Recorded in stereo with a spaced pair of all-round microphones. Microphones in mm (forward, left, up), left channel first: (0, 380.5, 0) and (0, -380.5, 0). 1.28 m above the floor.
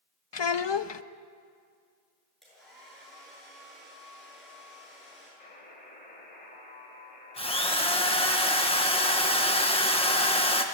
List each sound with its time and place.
0.3 s a child speaking: 40° left (ahead or behind), 0.6 m
2.4 s a hair dryer: centre (ahead or behind), 8 m
5.4 s a buzzer: 65° left (ahead or behind), 3.5 m
7.4 s a drill: 5° left (ahead or behind), 1.3 m